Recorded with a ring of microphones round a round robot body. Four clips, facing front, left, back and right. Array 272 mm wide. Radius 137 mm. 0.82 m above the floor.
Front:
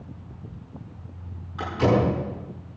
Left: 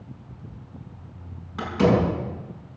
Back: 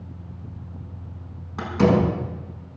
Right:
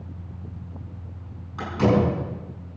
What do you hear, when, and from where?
1.6 s a door slam: 165° left, 7 m